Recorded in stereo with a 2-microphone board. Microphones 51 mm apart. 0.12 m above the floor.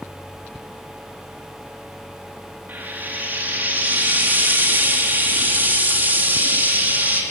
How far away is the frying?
About 6 m.